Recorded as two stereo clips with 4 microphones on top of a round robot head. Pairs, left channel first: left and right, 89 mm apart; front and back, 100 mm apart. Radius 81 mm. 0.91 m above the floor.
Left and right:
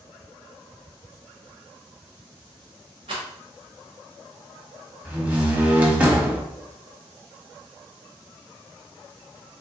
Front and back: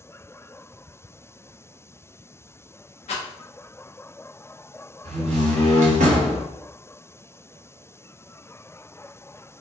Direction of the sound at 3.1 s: 40° right.